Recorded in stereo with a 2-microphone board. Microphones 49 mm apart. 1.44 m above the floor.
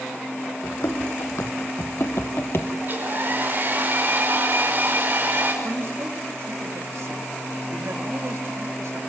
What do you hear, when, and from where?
0.6 s running footsteps: 70° left (ahead or behind), 4.5 m; by 2.7 s 50° left (ahead or behind), 2 m
2.8 s a hair dryer: 40° right (ahead or behind), 6 m
5.6 s a man speaking: 70° right (ahead or behind), 3.5 m